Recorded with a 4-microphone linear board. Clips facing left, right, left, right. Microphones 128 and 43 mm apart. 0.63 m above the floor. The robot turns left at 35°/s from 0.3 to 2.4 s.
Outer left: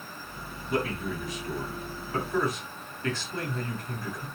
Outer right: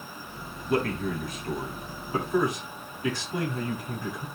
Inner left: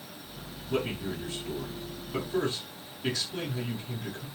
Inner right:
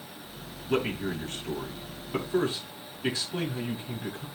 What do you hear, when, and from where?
0.7 s a man speaking: 105° right, 7 m; by 4.3 s 165° right, 7 m